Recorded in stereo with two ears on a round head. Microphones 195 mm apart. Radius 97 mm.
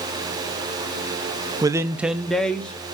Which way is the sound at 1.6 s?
15° right (ahead or behind).